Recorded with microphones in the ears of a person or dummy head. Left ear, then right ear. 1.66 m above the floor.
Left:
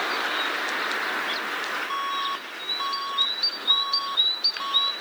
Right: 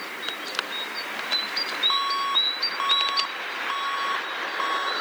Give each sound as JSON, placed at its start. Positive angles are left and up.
{"t": 1.9, "sound": "an alarm", "side_deg": -45}